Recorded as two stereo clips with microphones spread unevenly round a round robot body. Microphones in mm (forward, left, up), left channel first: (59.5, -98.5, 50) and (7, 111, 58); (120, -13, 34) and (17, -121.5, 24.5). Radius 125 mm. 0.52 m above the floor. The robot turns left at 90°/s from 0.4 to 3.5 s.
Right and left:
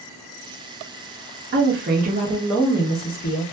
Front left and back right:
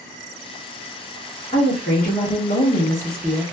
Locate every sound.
1.5 s a woman speaking: 105° left, 1.0 m; by 3.5 s 65° right, 1.0 m